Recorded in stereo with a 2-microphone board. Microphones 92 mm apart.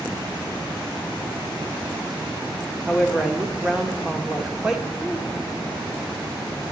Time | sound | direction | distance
2.9 | a woman speaking | 10° right (ahead or behind) | 1.3 m